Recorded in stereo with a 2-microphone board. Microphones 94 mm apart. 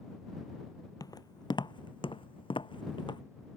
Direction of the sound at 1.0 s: 40° left (ahead or behind).